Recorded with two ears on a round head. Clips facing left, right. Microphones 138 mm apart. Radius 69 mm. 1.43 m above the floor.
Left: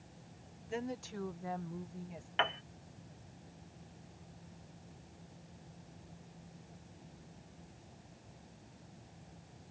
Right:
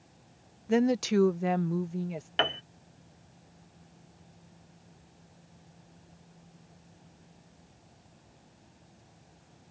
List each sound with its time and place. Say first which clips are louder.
0.7 s a woman speaking: right 16 dB; 70° right (ahead or behind); by 2.3 s 80° right
2.4 s a piano: right 4 dB; 45° right (ahead or behind)